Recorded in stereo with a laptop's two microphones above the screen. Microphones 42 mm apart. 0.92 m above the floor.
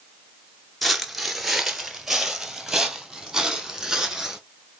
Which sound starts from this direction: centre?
Footsteps, at 0.8 s.